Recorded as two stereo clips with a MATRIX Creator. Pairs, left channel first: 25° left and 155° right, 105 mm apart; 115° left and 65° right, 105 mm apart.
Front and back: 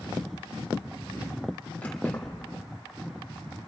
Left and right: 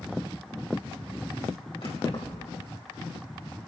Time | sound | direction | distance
1.8 | keys jangling | 95° left | 3.5 m